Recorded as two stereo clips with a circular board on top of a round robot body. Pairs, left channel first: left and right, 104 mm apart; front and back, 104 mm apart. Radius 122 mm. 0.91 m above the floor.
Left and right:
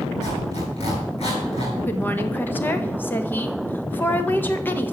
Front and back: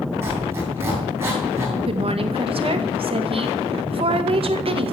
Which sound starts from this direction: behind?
A woman speaking, at 1.9 s.